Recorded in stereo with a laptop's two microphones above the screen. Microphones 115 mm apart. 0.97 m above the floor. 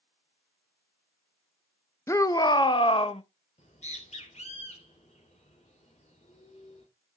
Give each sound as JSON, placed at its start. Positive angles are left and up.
{"t": 2.1, "sound": "a shout", "side_deg": 25, "distance_m": 0.7}
{"t": 3.6, "sound": "a bird", "side_deg": 80, "distance_m": 4.0}